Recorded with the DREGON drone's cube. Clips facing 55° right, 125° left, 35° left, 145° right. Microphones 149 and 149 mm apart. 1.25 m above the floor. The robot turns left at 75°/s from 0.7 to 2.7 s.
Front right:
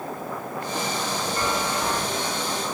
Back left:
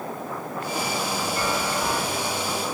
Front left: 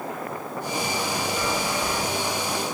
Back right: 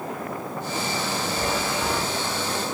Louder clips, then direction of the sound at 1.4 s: Front right 1 dB, even; 115° right.